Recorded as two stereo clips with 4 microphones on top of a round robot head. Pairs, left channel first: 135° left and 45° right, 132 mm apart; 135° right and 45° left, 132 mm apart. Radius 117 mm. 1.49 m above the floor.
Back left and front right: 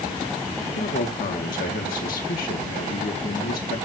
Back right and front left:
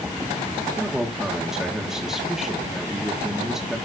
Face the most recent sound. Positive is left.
turn(degrees=130)